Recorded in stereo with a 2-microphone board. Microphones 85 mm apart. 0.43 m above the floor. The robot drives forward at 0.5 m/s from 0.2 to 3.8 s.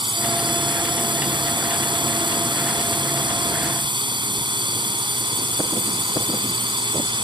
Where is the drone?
70° right (ahead or behind); by 7.2 s 65° right (ahead or behind).